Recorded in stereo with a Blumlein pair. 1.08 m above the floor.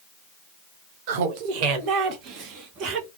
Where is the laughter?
50° right, 0.9 m; by 3.1 s 35° right, 1.9 m.